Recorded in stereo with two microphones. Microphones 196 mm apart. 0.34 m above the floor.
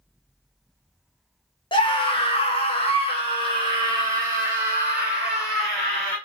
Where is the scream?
25° left (ahead or behind), 1.3 m; by 6.2 s 20° left (ahead or behind), 2 m.